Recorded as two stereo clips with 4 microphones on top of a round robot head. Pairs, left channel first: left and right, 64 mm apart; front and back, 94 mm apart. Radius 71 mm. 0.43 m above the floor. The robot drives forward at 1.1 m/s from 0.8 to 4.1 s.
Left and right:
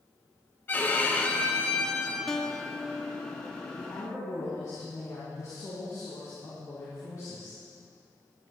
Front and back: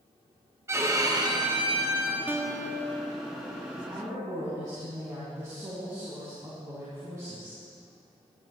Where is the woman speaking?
115° left, 3 m; by 7.6 s 125° left, 3.5 m.